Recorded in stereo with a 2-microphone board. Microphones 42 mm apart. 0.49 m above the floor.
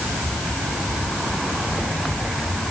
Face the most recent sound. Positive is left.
No sound to turn to.